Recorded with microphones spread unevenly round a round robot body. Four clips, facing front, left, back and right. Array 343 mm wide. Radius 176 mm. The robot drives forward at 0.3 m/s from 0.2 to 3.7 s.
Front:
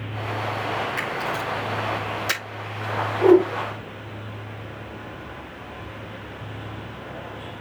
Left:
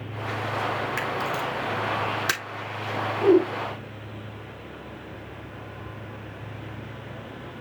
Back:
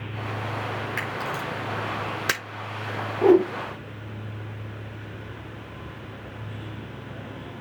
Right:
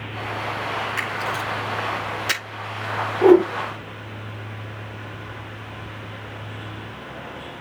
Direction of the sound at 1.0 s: 165° left.